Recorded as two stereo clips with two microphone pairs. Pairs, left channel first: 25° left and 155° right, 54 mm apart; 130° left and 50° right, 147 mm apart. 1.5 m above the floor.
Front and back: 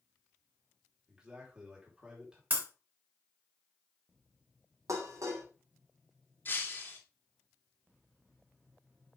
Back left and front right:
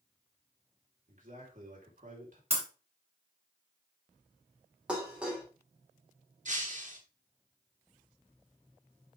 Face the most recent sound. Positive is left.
turn(degrees=-25)